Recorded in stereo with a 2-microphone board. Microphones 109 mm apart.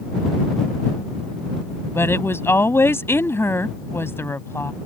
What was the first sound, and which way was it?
A woman speaking, 20° left (ahead or behind).